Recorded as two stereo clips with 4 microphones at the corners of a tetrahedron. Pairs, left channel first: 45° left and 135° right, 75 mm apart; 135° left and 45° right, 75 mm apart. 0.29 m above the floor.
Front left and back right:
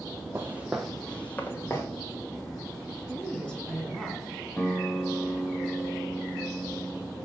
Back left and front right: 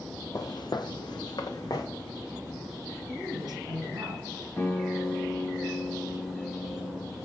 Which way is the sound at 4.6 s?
105° left.